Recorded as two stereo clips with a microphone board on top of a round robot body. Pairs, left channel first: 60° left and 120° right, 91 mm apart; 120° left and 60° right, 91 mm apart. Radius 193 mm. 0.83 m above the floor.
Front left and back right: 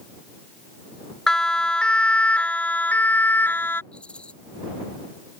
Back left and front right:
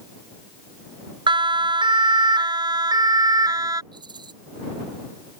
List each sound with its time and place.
1.3 s a siren: 25° right; by 3.8 s 10° right
3.9 s a rattle: 20° right